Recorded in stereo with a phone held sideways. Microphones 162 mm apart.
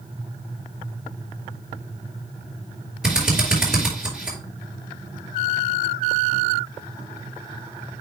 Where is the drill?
5° right (ahead or behind), 4.5 m.